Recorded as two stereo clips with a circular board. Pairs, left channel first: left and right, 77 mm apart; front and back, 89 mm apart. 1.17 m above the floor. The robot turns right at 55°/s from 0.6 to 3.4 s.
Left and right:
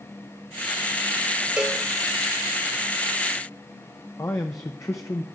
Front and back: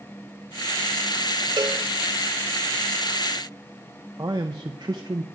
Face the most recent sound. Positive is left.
turn(degrees=140)